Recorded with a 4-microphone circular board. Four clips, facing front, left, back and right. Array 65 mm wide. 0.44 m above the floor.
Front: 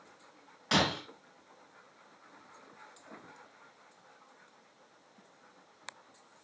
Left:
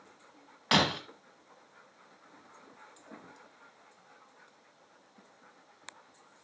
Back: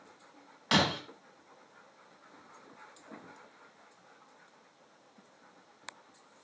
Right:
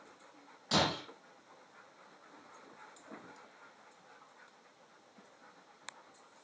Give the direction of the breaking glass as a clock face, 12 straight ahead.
9 o'clock.